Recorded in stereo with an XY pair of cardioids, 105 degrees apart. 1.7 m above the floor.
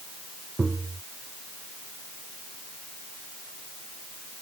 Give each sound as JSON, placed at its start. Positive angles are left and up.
{"t": 0.6, "sound": "tapping", "azimuth_deg": -20}